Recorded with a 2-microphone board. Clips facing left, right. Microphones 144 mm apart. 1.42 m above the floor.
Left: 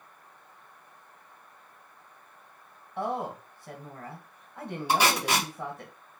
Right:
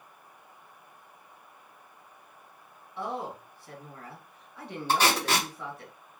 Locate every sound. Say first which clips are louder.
3.0 s a woman speaking: left 3 dB; 50° left (ahead or behind), 1.2 m
4.9 s tape being pulled: even; 10° left (ahead or behind), 1.4 m